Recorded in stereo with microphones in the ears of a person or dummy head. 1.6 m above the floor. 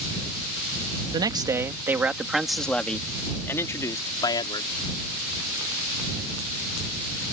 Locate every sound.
1.1 s a man speaking: 30° right (ahead or behind); by 4.7 s 20° left (ahead or behind)